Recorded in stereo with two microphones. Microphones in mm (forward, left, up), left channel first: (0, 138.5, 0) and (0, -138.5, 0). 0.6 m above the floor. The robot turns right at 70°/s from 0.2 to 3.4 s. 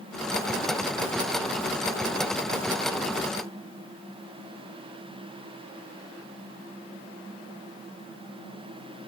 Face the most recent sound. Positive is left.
No sound to turn to.